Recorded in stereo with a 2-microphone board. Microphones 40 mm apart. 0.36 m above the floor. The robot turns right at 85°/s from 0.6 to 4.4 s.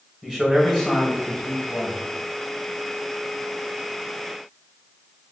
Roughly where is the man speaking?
Ahead.